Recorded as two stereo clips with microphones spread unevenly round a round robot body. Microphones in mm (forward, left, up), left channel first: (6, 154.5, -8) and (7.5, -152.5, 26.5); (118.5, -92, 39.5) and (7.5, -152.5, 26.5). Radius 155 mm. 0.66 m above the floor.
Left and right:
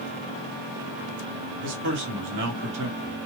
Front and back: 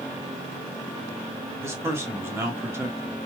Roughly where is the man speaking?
Behind right.